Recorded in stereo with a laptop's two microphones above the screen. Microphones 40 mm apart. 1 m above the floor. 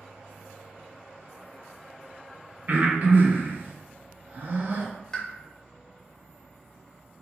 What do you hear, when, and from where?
0.0 s an insect: 30° right (ahead or behind), 0.9 m
2.7 s breathing: 45° right (ahead or behind), 0.6 m
5.1 s a pop: 15° left (ahead or behind), 0.7 m